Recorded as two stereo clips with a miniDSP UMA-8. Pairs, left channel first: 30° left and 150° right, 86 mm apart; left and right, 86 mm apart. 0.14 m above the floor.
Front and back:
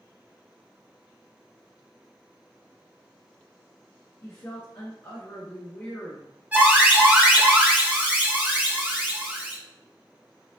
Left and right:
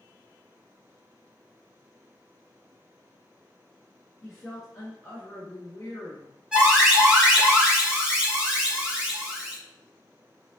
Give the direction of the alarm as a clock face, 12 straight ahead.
5 o'clock.